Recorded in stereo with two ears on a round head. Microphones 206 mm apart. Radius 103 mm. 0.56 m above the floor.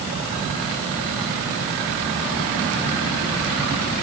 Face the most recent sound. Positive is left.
No sound to turn to.